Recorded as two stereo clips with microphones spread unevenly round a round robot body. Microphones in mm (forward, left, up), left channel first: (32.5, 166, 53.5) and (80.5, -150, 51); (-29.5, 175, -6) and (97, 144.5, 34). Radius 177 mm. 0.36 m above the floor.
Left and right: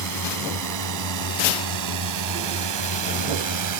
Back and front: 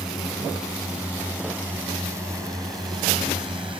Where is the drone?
110° right; by 3.8 s 85° right.